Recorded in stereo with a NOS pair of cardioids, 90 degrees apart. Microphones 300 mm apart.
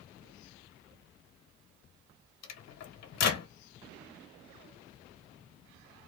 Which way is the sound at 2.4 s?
60° left.